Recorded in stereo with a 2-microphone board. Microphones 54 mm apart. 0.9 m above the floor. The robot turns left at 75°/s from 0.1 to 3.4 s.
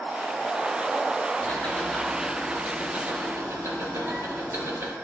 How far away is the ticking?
About 1.2 m.